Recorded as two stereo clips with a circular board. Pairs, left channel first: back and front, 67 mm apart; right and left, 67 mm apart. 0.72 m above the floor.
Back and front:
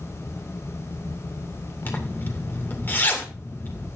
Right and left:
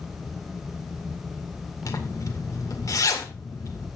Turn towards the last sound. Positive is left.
turn(degrees=-120)